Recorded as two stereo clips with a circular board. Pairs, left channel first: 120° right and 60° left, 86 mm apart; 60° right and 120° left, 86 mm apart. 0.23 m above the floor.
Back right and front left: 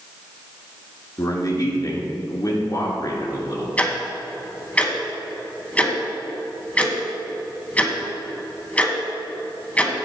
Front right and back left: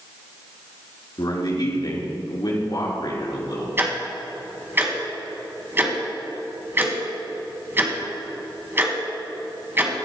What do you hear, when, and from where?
1.2 s a man speaking: 85° right, 3.5 m
3.8 s ticking: 175° left, 1.8 m